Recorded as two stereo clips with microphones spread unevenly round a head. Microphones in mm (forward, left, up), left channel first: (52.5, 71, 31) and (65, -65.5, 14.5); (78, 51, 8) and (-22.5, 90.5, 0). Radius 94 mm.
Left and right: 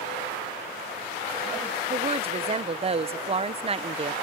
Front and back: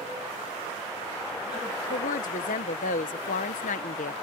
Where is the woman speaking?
35° right.